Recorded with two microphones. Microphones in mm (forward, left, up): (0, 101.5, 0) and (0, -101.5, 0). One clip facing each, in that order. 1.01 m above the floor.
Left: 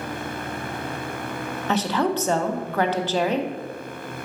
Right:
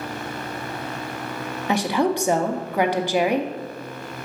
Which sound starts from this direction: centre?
A woman speaking, at 1.7 s.